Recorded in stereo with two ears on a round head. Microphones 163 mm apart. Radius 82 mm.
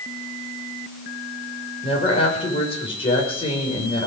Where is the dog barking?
I don't hear a dog barking.